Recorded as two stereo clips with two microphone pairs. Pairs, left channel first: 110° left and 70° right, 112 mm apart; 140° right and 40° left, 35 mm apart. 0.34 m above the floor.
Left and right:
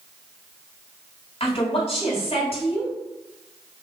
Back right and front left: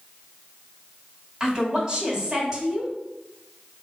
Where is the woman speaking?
110° left, 2.5 m.